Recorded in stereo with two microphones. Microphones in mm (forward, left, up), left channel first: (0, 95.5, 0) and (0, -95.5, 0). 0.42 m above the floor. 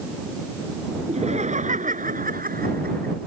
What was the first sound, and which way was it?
Laughter, 35° right (ahead or behind).